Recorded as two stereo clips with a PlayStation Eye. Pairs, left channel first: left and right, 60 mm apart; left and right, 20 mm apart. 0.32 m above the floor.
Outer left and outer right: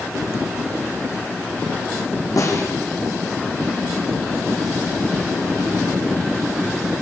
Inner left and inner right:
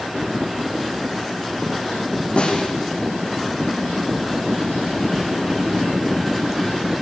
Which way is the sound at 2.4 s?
65° left (ahead or behind).